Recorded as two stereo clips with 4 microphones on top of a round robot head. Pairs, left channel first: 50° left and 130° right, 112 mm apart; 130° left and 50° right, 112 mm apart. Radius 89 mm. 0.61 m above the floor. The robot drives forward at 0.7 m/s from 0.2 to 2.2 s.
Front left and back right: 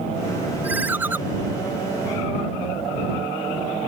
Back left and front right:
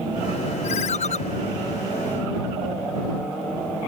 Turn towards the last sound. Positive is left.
turn(degrees=160)